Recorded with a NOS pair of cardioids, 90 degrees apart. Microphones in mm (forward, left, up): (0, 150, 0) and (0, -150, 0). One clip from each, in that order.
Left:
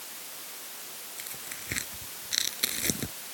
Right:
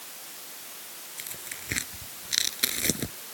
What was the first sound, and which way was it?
Tearing paper, 25° right.